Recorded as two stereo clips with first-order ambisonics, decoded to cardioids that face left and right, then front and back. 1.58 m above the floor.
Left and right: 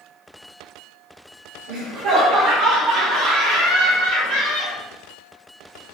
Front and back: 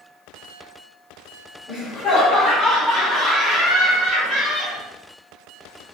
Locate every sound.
1.7 s laughter: 75° right, 1.4 m; by 4.8 s 90° right, 3 m